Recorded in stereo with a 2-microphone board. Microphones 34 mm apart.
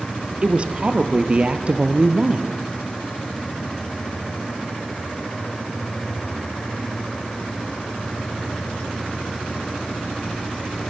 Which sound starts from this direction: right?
A woman speaking, at 0.4 s.